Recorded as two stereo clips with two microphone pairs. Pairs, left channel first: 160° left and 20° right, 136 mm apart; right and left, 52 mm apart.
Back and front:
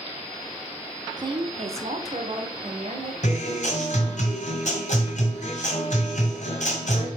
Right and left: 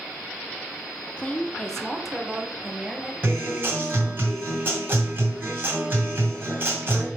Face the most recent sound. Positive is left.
turn(degrees=140)